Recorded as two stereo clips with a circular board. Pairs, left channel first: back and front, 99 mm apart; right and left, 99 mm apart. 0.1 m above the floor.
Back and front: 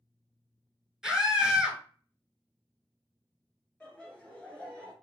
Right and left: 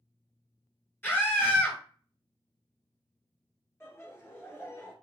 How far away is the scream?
About 1.1 m.